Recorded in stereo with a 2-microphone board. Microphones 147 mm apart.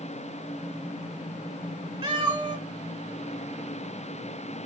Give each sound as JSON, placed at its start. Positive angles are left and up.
{"t": 2.0, "sound": "a cat meowing", "side_deg": -35, "distance_m": 1.5}